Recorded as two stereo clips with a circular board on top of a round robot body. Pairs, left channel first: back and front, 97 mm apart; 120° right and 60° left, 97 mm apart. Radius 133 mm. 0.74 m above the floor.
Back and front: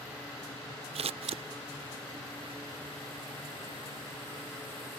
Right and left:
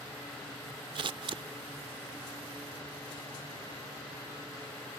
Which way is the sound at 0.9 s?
20° left.